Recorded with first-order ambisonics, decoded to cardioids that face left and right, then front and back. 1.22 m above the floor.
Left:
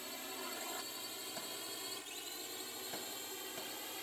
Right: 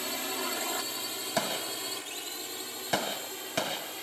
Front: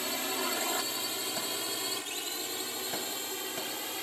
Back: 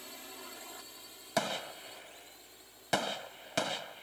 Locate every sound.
0.0 s a drone: 40° right; by 4.0 s 20° right
1.4 s a gunshot: 120° right